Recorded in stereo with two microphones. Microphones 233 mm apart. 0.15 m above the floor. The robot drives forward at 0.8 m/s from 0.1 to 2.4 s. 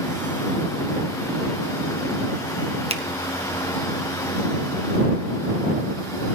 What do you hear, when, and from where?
2.9 s a finger snap: 25° right (ahead or behind), 1.1 m